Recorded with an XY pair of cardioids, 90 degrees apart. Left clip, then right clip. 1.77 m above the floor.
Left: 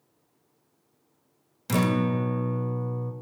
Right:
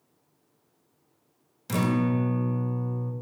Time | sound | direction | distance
1.7 | a guitar | 30° left | 0.5 m